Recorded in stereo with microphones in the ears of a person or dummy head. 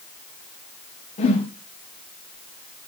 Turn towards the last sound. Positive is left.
turn(degrees=30)  # may be behind; listen again after turning